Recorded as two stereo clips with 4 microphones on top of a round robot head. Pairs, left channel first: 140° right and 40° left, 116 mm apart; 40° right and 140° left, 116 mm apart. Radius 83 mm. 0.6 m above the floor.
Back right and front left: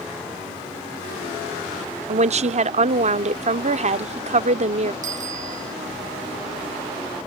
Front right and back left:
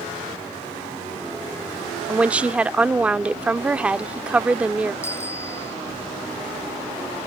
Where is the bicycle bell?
25° left.